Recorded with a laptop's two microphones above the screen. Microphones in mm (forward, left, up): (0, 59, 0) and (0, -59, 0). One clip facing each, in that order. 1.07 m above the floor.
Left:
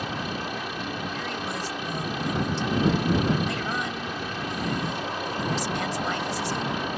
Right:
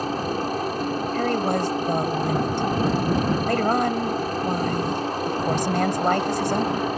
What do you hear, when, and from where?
0.0 s a helicopter: 40° right (ahead or behind)
1.1 s a woman speaking: 55° right (ahead or behind)